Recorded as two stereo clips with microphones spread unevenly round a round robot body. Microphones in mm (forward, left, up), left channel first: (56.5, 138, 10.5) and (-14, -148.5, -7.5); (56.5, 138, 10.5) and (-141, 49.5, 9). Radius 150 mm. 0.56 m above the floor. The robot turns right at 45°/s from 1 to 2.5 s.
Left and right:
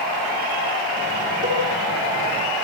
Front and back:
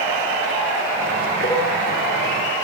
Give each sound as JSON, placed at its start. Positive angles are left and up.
{"t": 1.4, "sound": "a cowbell", "azimuth_deg": -55, "distance_m": 5.0}